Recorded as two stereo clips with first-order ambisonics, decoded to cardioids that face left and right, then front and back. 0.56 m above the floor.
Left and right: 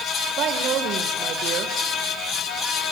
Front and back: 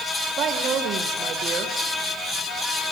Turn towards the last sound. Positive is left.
turn(degrees=-130)